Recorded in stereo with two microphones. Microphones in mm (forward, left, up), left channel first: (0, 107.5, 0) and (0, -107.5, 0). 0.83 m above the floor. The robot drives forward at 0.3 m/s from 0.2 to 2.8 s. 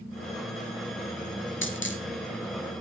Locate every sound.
1.6 s a dropped coin: 65° left (ahead or behind), 3.5 m; by 2.0 s 60° left (ahead or behind), 3.5 m